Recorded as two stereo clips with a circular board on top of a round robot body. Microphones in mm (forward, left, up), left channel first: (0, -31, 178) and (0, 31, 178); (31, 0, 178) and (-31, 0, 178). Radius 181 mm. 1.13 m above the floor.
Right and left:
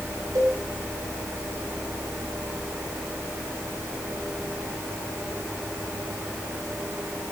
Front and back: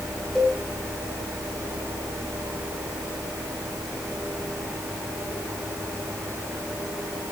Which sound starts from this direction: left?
A cowbell, at 0.3 s.